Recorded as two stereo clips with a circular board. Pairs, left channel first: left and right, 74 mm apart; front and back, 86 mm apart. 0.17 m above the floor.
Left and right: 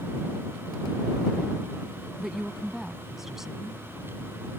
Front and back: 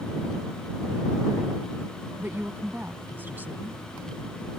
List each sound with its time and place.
2.2 s a woman speaking: 170° right